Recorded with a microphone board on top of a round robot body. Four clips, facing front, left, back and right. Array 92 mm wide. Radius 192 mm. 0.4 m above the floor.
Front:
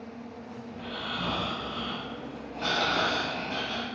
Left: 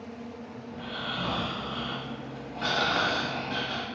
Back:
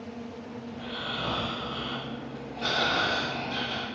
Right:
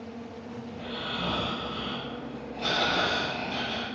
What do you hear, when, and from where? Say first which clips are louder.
0.7 s snoring: left 1 dB, even; 70° left, 1.1 m